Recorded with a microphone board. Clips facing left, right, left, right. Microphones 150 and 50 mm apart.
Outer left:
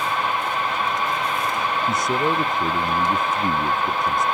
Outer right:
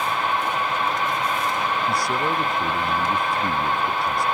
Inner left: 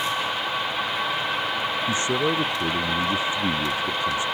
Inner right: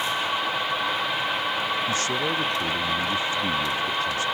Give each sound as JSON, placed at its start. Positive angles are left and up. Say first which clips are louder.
{"t": 1.9, "sound": "a man speaking", "louder": "outer left 2 dB, inner left 2 dB", "side_deg": 20}